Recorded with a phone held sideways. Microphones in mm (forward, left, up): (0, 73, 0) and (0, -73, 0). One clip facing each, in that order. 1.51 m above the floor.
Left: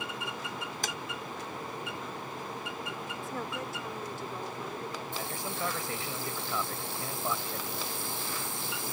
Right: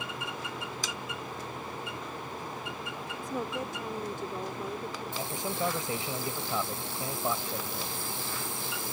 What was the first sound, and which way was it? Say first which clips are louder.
Tapping: left 1 dB; 60° left (ahead or behind).